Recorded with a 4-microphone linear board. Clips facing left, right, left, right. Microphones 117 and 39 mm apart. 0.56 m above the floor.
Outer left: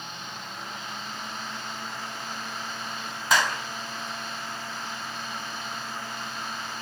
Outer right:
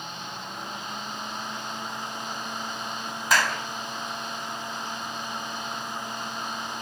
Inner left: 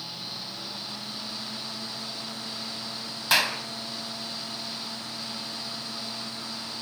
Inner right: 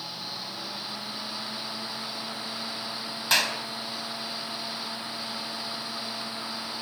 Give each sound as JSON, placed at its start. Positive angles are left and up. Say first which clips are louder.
{"t": 3.3, "sound": "a clap", "louder": "even, inner left 1 dB", "side_deg": 0, "distance_m": 4.0}